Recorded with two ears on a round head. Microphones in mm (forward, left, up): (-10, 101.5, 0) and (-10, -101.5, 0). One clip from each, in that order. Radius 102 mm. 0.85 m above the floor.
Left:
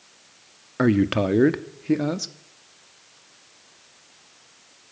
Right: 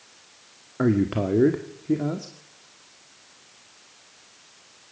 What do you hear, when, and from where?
0.8 s a man speaking: 75° left (ahead or behind), 1.3 m